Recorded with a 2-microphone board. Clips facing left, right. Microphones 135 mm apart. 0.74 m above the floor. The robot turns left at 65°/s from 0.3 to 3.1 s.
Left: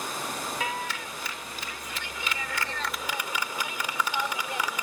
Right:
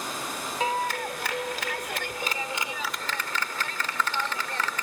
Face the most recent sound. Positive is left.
turn(degrees=165)